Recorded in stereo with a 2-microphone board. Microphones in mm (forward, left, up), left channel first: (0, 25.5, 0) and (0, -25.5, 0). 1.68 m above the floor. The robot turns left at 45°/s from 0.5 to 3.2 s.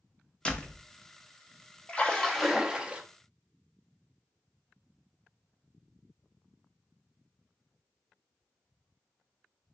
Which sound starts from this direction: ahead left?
A splash, at 1.9 s.